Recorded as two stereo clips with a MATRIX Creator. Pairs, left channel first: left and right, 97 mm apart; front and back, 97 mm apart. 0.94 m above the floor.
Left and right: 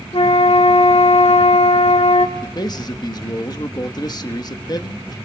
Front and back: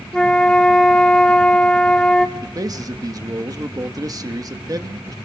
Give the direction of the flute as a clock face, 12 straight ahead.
9 o'clock.